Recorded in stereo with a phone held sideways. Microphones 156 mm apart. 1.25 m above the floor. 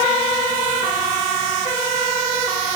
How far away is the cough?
No cough in this recording.